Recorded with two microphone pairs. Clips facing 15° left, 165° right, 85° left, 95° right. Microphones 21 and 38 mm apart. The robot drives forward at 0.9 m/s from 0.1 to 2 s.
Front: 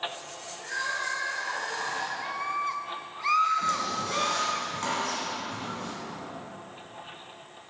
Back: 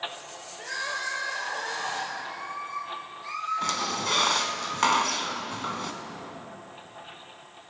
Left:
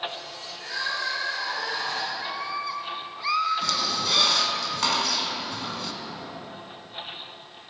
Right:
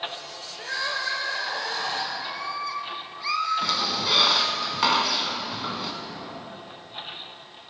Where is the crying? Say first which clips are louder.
Even, right 1 dB; 120° right, 3 m; by 2.1 s 135° right, 3.5 m.